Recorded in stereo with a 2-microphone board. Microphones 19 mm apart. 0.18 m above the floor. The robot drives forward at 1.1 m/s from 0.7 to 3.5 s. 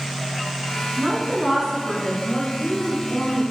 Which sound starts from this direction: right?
A woman speaking, at 1.0 s.